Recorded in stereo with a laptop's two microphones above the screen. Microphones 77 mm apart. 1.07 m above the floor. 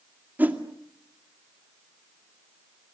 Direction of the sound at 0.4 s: 25° right (ahead or behind).